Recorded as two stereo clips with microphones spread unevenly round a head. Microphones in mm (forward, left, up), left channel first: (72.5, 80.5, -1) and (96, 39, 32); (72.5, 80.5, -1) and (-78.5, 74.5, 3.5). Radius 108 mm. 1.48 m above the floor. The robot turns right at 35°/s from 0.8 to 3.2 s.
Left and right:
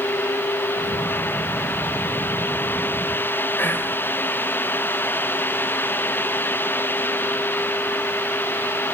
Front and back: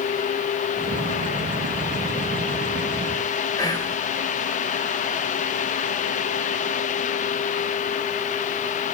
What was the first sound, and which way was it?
Whispering, 70° left.